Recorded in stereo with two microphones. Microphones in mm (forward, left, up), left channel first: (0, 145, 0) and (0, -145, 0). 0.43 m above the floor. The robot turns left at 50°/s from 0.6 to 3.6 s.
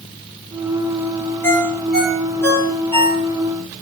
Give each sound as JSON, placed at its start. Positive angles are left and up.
{"t": 1.4, "sound": "a ringtone", "side_deg": 5, "distance_m": 4.5}